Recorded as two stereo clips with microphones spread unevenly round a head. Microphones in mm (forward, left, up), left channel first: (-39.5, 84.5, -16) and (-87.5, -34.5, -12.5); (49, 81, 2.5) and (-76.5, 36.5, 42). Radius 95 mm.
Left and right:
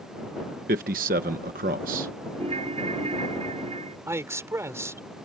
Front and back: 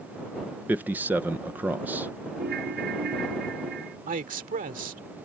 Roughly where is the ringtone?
Behind right.